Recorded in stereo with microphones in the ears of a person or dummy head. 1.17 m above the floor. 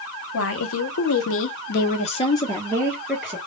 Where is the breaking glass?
I don't hear breaking glass.